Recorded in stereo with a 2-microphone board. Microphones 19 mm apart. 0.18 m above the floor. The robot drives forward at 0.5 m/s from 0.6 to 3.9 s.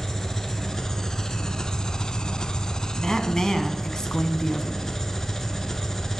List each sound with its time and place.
0.0 s an engine running: 25° left (ahead or behind), 1.0 m
3.0 s a woman speaking: 35° left (ahead or behind), 1.2 m